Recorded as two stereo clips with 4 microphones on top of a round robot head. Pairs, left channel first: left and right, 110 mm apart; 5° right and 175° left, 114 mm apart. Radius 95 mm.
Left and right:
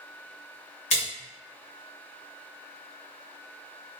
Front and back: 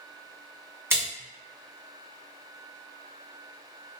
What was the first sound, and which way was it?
A splash, 105° left.